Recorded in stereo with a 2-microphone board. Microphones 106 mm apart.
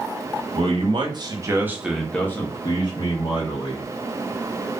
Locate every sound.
0.6 s a man speaking: 55° right (ahead or behind), 0.9 m; by 3.9 s 65° left (ahead or behind), 1.0 m